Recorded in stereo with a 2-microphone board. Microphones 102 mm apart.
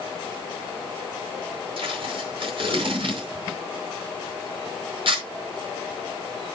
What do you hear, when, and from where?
1.8 s tape being pulled: 60° right (ahead or behind), 5 m